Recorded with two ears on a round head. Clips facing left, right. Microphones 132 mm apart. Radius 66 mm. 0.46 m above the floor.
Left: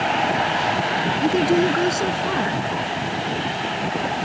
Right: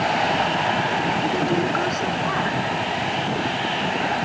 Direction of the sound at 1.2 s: 35° left (ahead or behind).